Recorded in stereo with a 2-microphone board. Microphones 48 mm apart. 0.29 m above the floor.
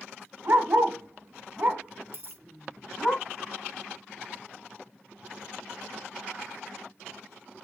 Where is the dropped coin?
45° right (ahead or behind), 0.9 m.